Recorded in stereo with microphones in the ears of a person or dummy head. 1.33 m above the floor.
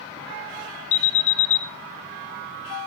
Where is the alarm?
40° left (ahead or behind), 1.8 m.